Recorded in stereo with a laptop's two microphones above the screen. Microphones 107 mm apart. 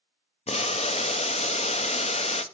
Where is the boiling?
75° left (ahead or behind), 0.5 m.